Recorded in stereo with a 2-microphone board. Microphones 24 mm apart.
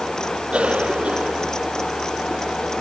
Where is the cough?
65° right (ahead or behind).